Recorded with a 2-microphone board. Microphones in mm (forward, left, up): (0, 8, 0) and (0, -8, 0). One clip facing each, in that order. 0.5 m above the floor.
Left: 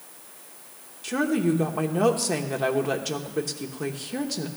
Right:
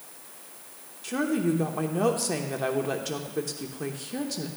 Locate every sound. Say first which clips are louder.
1.0 s a woman speaking: left 2 dB; 20° left (ahead or behind), 0.9 m